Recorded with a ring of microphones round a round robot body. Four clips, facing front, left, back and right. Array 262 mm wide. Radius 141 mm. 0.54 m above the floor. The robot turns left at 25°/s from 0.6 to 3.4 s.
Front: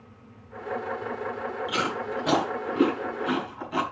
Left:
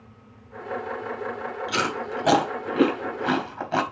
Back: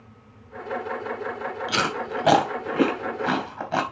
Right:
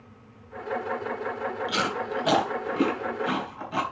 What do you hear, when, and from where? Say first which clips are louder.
1.7 s chewing: left 3 dB, back 3 dB; straight behind, 3.5 m; by 3.8 s 135° left, 3.5 m